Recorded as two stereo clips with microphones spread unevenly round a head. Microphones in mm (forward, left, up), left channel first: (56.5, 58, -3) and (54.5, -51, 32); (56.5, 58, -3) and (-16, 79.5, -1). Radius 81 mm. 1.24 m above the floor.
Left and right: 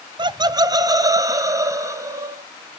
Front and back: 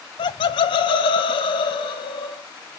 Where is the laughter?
35° right, 0.7 m; by 2.4 s 25° right, 1.9 m.